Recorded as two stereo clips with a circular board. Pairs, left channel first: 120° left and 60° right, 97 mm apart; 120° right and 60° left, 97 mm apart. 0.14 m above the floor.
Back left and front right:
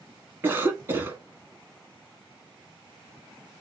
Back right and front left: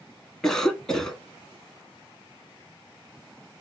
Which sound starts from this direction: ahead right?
A cough, at 0.4 s.